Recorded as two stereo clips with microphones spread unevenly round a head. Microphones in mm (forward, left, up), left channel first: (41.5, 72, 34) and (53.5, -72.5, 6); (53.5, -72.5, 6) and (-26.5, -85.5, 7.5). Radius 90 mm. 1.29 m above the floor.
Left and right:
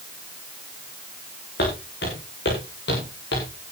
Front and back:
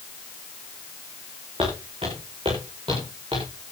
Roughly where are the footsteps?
Behind left.